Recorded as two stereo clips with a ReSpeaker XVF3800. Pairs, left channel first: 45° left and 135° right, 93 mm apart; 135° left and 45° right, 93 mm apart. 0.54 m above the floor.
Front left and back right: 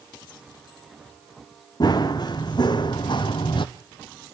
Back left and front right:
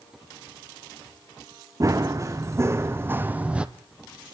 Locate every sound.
1.8 s running footsteps: 5° left, 3 m; by 3.7 s 35° left, 1.2 m